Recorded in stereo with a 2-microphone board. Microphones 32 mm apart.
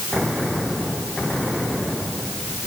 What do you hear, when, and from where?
Only background noise.